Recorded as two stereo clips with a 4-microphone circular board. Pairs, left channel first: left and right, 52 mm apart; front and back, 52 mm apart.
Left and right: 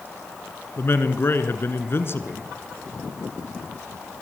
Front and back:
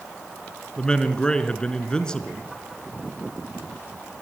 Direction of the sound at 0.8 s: 70° left.